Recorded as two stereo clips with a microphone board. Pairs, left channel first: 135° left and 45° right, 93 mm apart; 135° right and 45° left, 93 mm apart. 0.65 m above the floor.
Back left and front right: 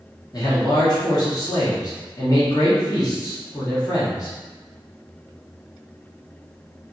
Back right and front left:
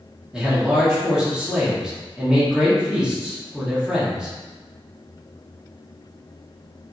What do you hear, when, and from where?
0.3 s a man speaking: 125° left, 1.2 m